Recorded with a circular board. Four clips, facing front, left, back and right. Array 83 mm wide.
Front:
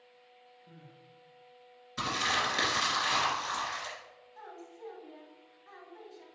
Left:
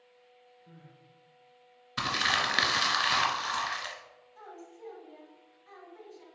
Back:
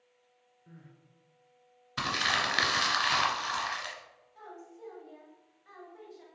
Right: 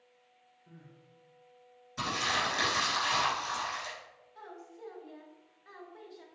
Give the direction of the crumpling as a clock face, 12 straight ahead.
8 o'clock.